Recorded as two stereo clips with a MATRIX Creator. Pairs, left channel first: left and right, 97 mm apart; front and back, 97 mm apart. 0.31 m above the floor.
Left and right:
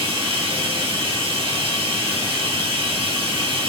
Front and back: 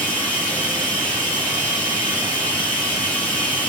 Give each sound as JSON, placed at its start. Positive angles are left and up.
{"t": 0.0, "sound": "running water", "azimuth_deg": -75, "distance_m": 1.2}